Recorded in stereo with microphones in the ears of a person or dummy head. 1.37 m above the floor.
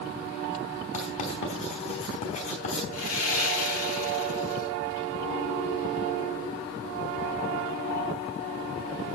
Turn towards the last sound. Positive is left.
turn(degrees=85)